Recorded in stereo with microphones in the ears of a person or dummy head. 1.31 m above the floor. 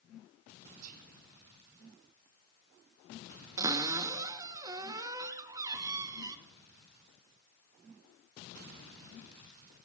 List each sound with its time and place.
0.8 s whispering: 35° right (ahead or behind), 0.9 m
3.6 s a cupboard door: 10° right (ahead or behind), 0.6 m